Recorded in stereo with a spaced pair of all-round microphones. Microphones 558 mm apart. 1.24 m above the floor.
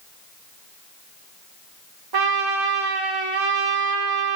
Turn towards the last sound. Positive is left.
turn(degrees=-45)  # may be behind; listen again after turning